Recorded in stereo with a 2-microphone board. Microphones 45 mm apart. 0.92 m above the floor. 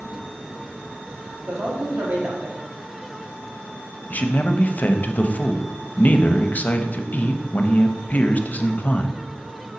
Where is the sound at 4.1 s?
40° left (ahead or behind), 0.6 m.